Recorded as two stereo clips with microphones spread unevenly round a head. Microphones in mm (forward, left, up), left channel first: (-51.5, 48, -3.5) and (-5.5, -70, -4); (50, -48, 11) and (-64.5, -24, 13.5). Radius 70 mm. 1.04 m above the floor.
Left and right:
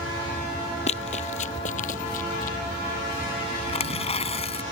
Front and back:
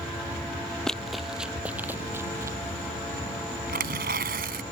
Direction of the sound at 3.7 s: 150° left.